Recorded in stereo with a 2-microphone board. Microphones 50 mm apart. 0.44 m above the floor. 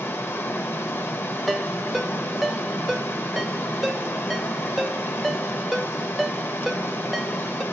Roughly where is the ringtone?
Centre.